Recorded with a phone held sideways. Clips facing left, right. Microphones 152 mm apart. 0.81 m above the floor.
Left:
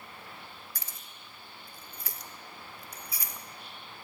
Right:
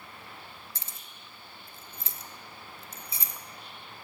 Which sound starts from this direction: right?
Keys jangling, at 0.8 s.